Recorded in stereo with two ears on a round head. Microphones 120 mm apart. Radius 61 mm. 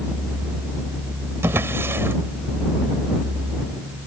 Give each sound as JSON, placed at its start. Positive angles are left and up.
{"t": 1.4, "sound": "a drawer", "side_deg": -20}